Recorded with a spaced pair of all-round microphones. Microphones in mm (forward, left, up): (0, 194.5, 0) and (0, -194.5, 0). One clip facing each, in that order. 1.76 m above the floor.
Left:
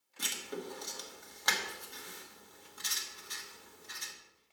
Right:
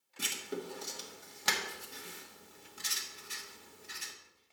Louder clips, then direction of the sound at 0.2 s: Right 2 dB; 40° right (ahead or behind).